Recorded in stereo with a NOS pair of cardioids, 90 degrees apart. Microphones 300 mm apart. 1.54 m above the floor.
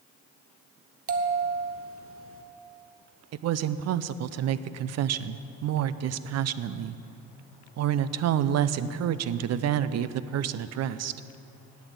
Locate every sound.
1.1 s a bell: 45° right, 1.2 m
3.3 s a woman speaking: 60° right, 0.5 m